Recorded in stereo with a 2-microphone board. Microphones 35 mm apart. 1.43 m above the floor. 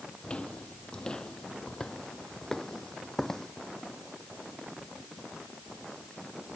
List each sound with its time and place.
0.2 s footsteps: 30° left (ahead or behind); by 3.5 s 10° left (ahead or behind)